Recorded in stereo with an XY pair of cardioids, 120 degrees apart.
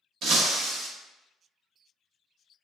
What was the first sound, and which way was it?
Breaking glass, 65° right.